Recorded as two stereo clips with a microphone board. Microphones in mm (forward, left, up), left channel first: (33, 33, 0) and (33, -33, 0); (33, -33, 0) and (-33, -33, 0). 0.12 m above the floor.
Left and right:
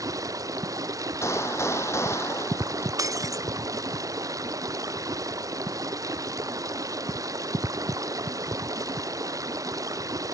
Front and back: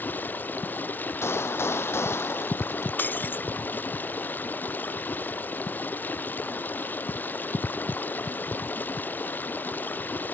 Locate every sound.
0.0 s running water: 60° right
1.2 s a gunshot: 45° left
3.0 s breaking glass: 60° right